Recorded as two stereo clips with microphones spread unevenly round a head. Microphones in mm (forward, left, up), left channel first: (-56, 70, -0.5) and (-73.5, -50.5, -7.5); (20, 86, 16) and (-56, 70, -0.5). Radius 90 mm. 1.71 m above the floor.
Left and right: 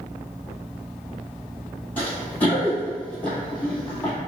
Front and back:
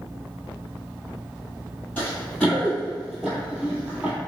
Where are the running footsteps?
20° left, 1.9 m; by 4.2 s 130° left, 1.7 m.